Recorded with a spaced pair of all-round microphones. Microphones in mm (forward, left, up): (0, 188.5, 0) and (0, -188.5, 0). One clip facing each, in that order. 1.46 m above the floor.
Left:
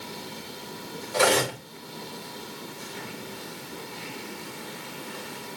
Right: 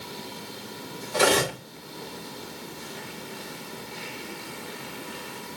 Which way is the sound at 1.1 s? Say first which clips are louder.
Right 1 dB; 45° right (ahead or behind).